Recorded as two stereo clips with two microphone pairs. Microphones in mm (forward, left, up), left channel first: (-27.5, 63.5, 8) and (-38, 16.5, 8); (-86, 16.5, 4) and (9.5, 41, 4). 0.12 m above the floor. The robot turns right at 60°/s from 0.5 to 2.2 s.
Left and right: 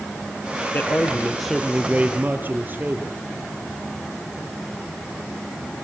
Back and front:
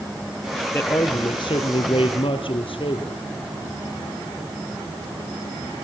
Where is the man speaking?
125° left, 3.5 m; by 3.2 s 145° right, 3.5 m.